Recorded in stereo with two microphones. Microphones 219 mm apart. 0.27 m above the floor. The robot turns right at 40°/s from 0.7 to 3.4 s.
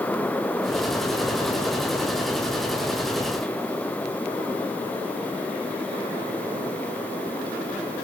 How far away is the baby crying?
I don't hear a baby crying.